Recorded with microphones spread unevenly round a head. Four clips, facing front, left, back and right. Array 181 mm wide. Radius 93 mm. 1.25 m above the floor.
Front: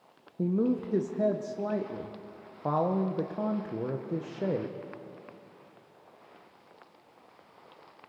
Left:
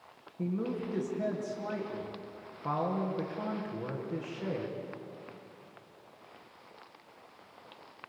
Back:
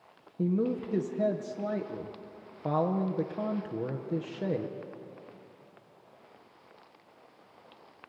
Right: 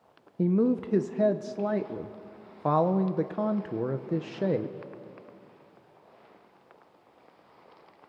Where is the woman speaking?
140° right, 1.0 m.